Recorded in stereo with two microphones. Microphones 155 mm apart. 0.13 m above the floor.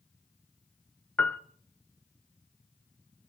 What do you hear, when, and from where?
1.2 s a piano: 10° left (ahead or behind), 0.6 m